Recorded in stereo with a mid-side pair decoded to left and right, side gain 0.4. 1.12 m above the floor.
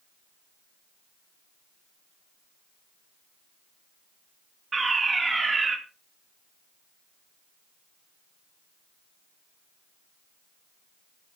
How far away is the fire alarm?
About 4.5 m.